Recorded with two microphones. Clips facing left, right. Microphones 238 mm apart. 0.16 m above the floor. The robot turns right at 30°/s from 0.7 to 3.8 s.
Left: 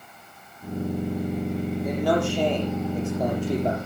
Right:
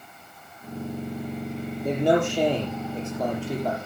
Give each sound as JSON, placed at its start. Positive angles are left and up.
{"t": 1.9, "sound": "a man speaking", "azimuth_deg": -35, "distance_m": 9.0}